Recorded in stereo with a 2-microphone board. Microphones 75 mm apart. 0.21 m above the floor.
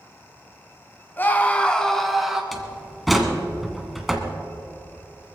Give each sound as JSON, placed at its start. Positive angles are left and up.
{"t": 1.2, "sound": "a scream", "side_deg": 30, "distance_m": 1.4}
{"t": 2.5, "sound": "a door slam", "side_deg": 0, "distance_m": 1.7}